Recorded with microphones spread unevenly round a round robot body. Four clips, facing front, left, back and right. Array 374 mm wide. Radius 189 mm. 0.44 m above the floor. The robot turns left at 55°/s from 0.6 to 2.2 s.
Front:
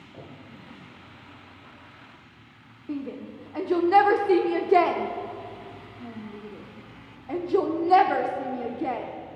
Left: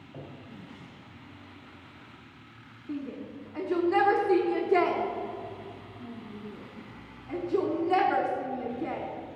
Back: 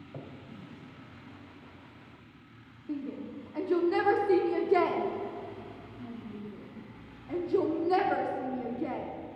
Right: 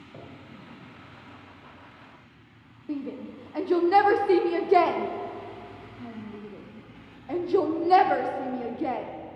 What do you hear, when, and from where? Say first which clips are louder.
0.1 s a cupboard door: left 1 dB, even; 175° right, 2.5 m
2.9 s a shout: right 3 dB, front 3 dB; 40° right, 1.0 m